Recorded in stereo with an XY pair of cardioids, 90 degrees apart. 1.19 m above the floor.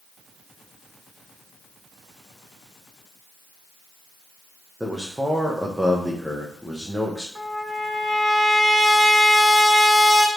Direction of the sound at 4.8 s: 5° right.